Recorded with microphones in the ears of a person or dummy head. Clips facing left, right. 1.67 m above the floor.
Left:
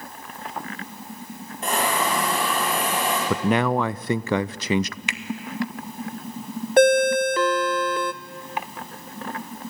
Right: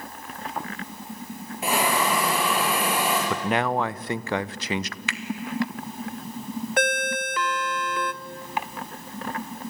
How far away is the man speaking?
About 0.6 m.